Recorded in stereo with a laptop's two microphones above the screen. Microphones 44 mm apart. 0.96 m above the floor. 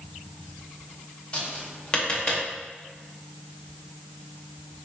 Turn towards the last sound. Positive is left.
turn(degrees=25)  # may be behind; listen again after turning